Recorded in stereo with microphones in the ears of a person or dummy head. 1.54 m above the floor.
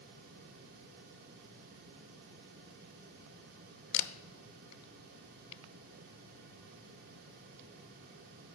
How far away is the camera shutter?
About 0.5 m.